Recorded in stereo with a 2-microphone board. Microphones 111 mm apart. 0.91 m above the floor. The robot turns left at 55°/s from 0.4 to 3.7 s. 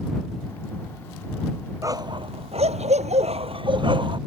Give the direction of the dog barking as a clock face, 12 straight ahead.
1 o'clock.